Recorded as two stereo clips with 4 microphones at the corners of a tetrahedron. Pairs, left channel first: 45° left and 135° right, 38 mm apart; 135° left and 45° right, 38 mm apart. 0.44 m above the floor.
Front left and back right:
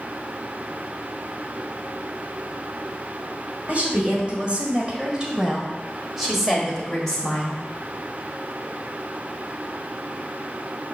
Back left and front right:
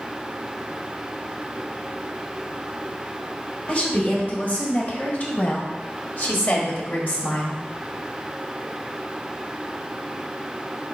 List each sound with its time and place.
3.7 s a woman speaking: 175° right, 2.5 m; by 7.6 s 115° left, 1.9 m